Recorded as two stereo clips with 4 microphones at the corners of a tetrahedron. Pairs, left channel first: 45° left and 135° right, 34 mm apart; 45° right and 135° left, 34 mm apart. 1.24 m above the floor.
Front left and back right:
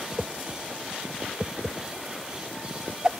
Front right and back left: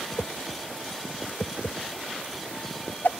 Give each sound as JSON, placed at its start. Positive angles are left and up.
{"t": 0.2, "sound": "a whoosh", "azimuth_deg": -65}